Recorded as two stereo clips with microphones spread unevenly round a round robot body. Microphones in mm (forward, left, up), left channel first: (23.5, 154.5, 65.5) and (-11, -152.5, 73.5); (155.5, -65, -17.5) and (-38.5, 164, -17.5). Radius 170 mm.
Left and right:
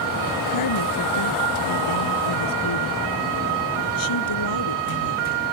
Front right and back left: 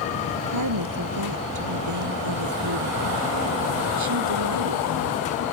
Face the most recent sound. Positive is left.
turn(degrees=105)